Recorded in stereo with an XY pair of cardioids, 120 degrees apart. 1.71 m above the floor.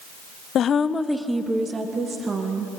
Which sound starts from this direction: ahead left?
A woman speaking, at 0.6 s.